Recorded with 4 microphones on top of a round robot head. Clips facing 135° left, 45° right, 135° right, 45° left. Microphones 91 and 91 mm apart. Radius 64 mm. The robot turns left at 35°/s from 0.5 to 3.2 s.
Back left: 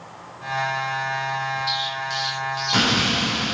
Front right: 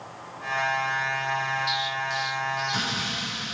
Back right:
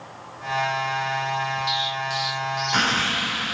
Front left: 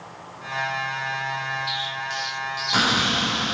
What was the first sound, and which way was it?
An explosion, 165° left.